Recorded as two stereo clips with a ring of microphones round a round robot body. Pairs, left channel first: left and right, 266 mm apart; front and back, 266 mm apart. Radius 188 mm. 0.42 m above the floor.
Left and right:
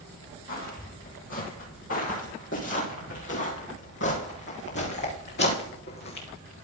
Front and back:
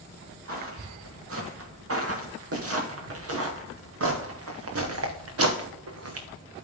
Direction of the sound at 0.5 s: 150° left.